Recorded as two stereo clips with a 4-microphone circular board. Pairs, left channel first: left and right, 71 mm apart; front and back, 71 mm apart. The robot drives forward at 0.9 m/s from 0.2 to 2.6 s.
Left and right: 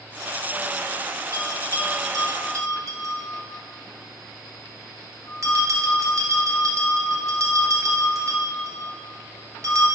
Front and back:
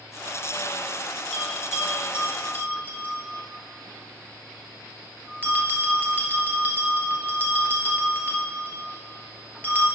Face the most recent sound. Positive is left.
turn(degrees=-120)